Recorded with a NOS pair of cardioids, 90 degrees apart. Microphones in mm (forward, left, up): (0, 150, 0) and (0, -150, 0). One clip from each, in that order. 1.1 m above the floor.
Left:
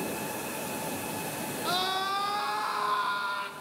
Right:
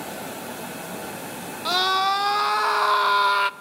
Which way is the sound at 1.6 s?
50° right.